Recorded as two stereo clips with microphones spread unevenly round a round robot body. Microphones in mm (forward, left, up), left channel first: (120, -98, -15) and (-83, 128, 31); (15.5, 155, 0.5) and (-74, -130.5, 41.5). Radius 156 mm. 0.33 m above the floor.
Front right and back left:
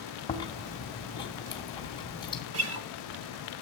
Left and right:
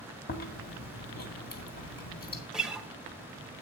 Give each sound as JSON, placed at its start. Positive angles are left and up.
{"t": 0.3, "sound": "chewing", "azimuth_deg": 20, "distance_m": 2.0}
{"t": 2.5, "sound": "a guitar", "azimuth_deg": 155, "distance_m": 1.6}